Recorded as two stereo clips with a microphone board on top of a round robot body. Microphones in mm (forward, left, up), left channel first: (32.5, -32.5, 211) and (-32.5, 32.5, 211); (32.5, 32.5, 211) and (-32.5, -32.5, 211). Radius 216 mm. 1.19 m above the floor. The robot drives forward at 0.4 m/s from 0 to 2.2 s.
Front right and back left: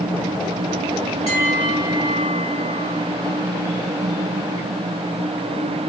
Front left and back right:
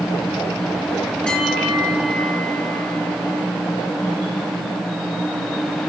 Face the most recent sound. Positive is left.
turn(degrees=-40)